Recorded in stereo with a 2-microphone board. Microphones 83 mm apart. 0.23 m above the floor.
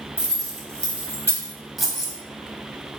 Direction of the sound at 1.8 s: 5° right (ahead or behind).